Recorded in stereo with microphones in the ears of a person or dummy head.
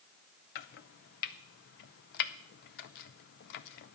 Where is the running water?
No running water in this recording.